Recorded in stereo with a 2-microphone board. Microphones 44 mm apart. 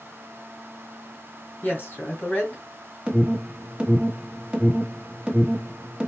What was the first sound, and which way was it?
A woman speaking, 45° left (ahead or behind).